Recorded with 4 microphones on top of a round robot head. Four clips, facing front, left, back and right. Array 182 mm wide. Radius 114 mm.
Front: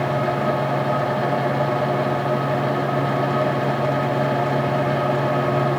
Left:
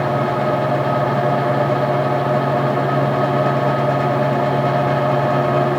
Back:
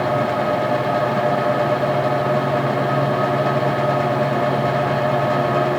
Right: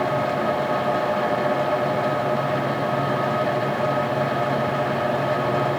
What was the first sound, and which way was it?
Only background noise.